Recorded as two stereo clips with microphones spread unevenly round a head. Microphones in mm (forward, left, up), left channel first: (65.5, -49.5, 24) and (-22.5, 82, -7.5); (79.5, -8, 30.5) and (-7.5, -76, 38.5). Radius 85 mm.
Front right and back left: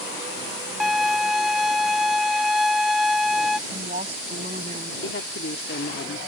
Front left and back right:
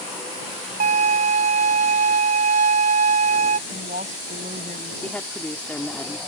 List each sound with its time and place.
0.8 s a violin: 145° right
3.7 s a woman speaking: straight behind
5.0 s a woman speaking: 40° right